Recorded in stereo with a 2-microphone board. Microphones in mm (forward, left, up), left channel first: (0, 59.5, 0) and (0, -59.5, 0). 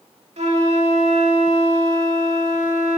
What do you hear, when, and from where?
0.4 s a flute: 70° right (ahead or behind), 1.5 m